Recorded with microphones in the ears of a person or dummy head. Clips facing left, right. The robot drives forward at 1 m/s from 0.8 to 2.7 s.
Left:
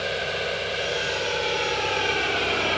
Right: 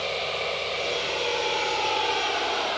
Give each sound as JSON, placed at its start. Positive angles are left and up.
{"t": 0.0, "sound": "an engine running", "side_deg": 15}